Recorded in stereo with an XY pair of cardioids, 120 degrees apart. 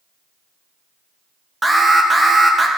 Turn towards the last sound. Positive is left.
turn(degrees=-10)